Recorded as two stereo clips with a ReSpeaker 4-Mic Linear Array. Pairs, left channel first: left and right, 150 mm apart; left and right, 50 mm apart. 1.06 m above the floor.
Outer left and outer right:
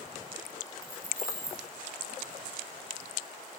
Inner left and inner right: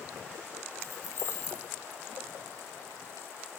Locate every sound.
0.8 s keys jangling: 70° left (ahead or behind), 1.6 m